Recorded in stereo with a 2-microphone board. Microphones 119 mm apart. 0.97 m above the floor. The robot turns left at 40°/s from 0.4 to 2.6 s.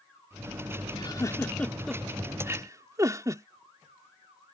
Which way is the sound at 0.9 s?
40° left (ahead or behind).